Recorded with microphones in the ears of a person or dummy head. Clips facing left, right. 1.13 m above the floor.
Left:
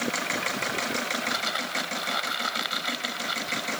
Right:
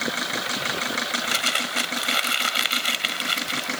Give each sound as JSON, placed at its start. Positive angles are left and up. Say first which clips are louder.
{"t": 1.1, "sound": "crumpling", "louder": "right 2 dB", "side_deg": -40}